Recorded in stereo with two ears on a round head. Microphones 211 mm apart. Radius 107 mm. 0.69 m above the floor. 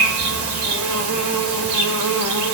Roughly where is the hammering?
No hammering in this recording.